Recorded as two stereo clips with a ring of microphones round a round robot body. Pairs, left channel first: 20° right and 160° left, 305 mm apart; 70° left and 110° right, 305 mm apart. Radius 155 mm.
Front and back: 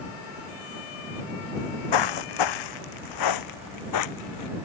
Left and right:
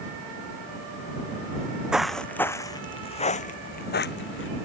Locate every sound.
1.6 s footsteps: 30° right; by 4.5 s 15° left